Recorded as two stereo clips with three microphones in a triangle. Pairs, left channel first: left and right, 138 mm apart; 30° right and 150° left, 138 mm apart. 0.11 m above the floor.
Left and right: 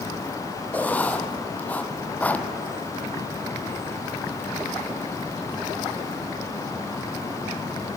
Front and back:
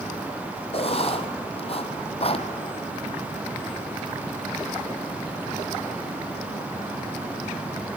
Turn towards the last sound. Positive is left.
turn(degrees=10)